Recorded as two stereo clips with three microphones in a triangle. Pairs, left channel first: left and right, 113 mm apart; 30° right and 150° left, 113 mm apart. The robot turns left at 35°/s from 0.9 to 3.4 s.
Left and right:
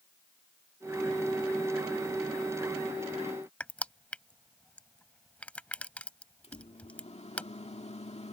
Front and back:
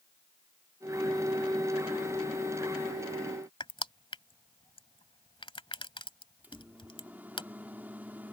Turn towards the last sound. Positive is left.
turn(degrees=75)